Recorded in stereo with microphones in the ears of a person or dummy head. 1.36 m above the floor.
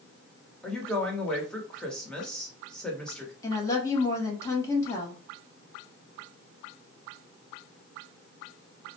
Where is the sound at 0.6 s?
5° left (ahead or behind), 1.1 m.